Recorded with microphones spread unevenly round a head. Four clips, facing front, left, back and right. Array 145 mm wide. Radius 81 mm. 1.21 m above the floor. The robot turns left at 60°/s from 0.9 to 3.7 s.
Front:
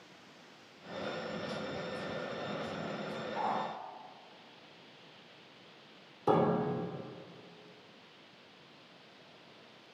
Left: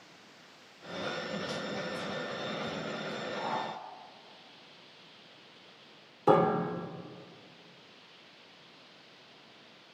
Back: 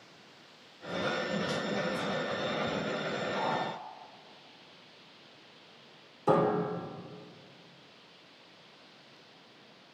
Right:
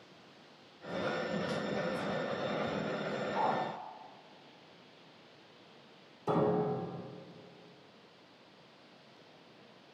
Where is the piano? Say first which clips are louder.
Left 5 dB, back 2 dB; 90° left, 3.5 m.